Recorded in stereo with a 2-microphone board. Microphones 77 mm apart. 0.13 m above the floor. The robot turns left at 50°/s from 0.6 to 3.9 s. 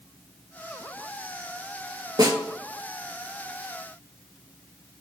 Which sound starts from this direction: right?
A snare drum, at 2.2 s.